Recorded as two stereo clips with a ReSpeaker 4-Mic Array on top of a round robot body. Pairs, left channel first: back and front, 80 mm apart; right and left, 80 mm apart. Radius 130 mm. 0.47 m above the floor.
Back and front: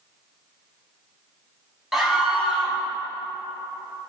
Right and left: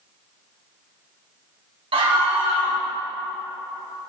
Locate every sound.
1.9 s a scream: 85° left, 6 m